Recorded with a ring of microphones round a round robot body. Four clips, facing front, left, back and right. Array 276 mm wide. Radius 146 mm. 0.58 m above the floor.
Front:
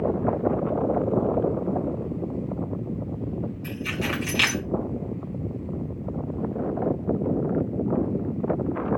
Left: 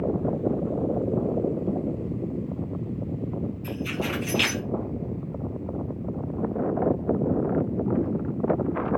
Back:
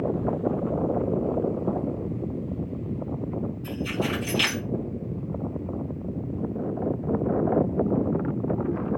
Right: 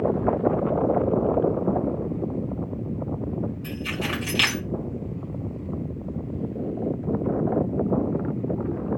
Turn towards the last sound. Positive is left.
turn(degrees=-35)